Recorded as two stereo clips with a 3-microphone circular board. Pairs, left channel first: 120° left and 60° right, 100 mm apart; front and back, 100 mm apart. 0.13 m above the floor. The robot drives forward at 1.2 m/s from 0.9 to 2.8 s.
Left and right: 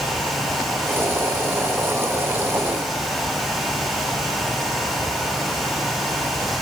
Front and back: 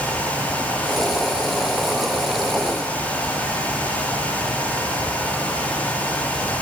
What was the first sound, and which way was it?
Only background noise.